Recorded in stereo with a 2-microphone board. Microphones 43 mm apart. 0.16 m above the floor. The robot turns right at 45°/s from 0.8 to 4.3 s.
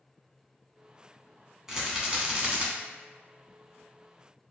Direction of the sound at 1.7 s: 15° right (ahead or behind).